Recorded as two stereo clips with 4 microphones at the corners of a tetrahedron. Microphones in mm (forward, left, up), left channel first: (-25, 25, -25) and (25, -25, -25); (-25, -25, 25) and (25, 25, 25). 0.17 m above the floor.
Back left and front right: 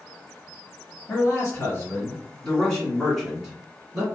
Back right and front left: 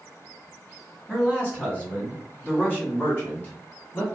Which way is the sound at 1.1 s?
160° left.